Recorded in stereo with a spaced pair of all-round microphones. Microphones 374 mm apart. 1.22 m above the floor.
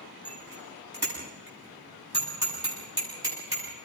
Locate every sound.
0.2 s a bicycle bell: 90° right, 8 m